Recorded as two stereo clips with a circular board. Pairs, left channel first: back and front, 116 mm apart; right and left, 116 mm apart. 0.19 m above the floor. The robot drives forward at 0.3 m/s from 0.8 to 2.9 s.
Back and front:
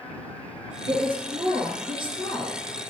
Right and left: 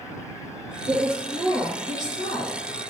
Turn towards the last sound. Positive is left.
turn(degrees=50)